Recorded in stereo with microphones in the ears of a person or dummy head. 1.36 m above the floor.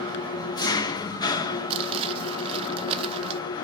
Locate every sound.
0.0 s an engine running: 25° left (ahead or behind), 0.8 m
1.7 s crumpling: 35° right (ahead or behind), 0.7 m